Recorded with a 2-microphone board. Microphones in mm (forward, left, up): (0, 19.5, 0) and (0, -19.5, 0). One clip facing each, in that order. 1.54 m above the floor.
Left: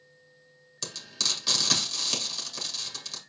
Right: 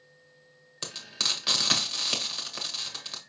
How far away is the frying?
About 1.2 m.